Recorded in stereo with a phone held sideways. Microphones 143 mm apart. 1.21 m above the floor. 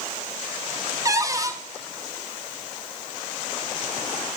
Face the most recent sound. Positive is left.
turn(degrees=-25)  # may be behind; listen again after turning